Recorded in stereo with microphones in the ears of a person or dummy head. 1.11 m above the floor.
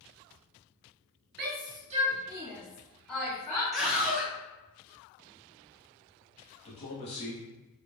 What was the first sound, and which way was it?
A shout, 40° right (ahead or behind).